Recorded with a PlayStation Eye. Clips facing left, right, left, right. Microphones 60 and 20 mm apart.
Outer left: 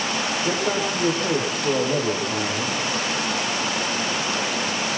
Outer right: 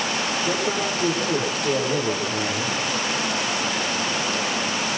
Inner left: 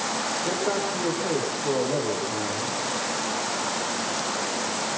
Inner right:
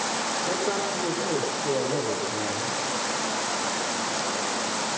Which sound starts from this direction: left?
A man speaking, at 0.5 s.